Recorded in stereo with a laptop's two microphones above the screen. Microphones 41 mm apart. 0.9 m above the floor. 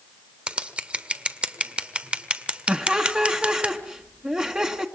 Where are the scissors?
30° right (ahead or behind), 1.7 m.